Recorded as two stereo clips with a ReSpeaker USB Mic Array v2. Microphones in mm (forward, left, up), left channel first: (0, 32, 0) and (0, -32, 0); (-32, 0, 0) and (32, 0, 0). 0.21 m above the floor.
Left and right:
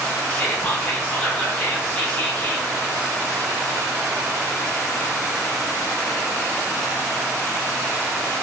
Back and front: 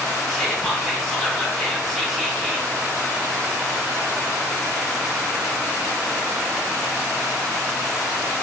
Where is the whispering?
105° left, 1.1 m.